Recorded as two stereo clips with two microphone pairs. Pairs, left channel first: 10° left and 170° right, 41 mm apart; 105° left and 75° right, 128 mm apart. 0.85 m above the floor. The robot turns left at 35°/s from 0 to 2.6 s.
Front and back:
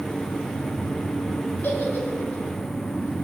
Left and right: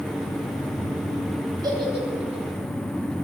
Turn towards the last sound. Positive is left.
turn(degrees=-50)